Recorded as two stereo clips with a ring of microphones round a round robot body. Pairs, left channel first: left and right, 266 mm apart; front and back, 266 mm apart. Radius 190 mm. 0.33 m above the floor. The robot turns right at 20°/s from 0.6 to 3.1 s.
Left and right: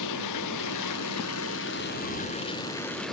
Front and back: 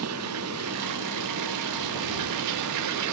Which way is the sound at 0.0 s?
130° left.